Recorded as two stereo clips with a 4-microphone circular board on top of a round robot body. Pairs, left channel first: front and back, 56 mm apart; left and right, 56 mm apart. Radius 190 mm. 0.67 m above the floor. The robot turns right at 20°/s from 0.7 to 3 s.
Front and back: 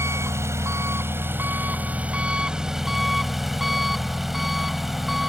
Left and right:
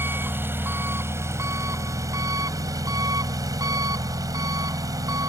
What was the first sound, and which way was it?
An engine running, 140° right.